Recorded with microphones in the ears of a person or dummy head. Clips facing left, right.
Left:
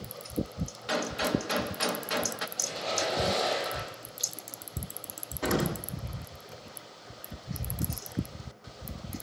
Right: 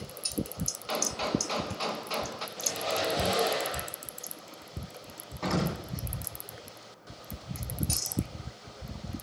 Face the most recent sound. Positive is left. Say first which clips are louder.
# left 2 dB
turn(degrees=5)  # may be behind; listen again after turning